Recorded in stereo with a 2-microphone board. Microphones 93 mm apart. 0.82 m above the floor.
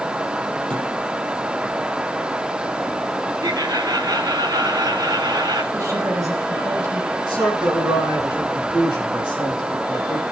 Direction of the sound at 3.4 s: 45° right (ahead or behind).